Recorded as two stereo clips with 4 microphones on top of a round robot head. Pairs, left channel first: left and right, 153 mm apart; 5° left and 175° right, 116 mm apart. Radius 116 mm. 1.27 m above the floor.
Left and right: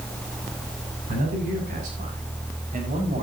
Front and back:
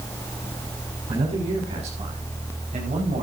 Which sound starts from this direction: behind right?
A man speaking, at 1.1 s.